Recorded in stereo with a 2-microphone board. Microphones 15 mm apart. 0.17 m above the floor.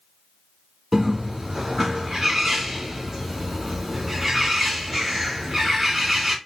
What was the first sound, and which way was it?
A bird, 10° right (ahead or behind).